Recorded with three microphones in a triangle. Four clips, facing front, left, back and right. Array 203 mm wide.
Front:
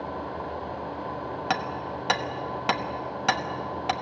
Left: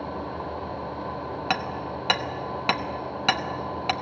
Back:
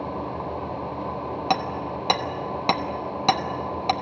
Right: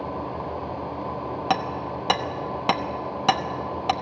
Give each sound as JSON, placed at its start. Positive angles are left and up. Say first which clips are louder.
{"t": 1.5, "sound": "hammering", "louder": "right 4 dB, back 4 dB", "azimuth_deg": -135, "distance_m": 0.9}